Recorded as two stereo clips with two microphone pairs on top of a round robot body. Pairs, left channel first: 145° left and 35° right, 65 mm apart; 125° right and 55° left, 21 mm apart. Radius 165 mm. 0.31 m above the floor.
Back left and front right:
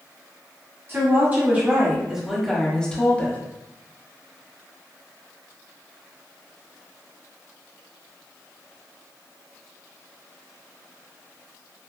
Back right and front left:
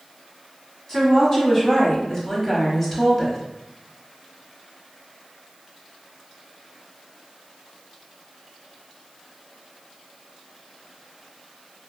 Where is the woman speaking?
35° right, 1.8 m; by 3.4 s 175° left, 1.5 m.